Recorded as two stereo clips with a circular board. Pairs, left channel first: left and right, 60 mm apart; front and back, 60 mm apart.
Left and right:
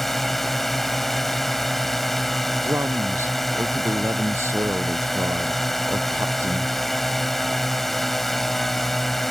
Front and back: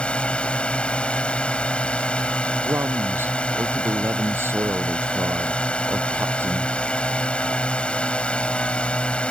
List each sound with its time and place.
0.0 s a drone: 10° left
2.6 s a man speaking: 135° right